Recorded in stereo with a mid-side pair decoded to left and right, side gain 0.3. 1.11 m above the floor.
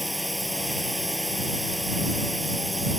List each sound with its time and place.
0.0 s a drone: 5° left